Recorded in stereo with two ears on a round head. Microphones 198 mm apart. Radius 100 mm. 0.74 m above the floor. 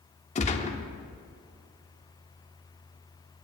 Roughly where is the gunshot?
Left.